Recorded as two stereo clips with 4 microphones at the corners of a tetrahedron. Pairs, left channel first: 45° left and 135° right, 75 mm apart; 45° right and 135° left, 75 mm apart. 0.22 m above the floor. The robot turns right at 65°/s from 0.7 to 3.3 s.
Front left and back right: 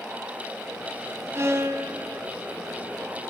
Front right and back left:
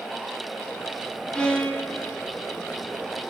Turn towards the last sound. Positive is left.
turn(degrees=5)